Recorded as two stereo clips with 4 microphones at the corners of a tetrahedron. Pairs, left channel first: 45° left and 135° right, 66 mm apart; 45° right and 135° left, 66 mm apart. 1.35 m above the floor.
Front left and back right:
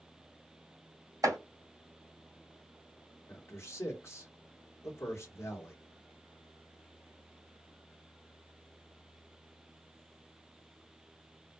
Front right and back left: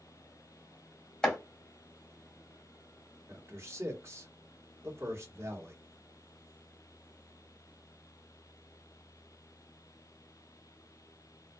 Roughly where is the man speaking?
Left.